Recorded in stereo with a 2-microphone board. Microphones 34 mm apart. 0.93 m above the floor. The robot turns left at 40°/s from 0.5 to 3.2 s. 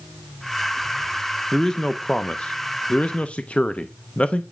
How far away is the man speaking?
About 0.6 m.